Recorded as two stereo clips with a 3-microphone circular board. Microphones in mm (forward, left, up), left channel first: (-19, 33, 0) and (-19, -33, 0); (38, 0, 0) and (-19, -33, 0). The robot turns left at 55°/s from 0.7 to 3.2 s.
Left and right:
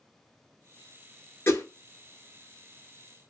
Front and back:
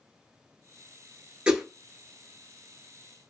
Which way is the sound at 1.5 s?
135° left.